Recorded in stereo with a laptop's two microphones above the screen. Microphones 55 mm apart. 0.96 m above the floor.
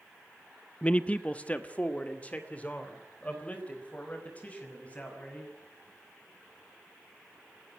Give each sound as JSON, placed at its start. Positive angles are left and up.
{"t": 0.8, "sound": "a man speaking", "side_deg": 25, "distance_m": 0.5}